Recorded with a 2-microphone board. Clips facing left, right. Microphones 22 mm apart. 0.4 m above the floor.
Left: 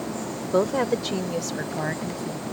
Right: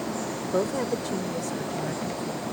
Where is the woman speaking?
30° left (ahead or behind); by 2.4 s 70° left (ahead or behind).